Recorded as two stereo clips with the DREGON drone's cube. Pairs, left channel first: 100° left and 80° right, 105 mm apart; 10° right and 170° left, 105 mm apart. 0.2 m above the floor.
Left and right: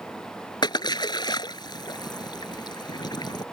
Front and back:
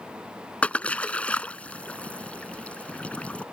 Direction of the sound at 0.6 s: 65° left.